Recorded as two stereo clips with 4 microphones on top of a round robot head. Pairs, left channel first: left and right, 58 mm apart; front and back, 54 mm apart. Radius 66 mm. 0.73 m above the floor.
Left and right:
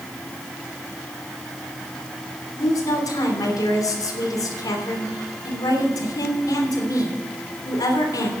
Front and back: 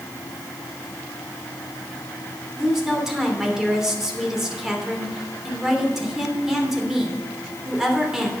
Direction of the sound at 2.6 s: 100° left.